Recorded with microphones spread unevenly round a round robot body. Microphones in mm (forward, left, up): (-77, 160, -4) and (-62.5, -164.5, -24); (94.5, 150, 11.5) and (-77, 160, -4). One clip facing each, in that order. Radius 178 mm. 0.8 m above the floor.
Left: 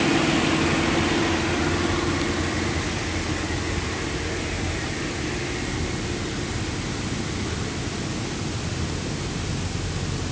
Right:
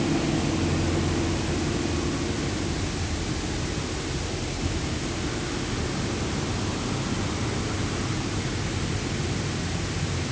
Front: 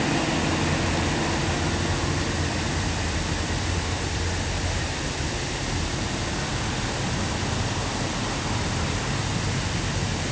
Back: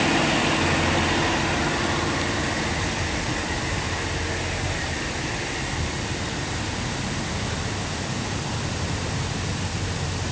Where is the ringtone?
No ringtone in this recording.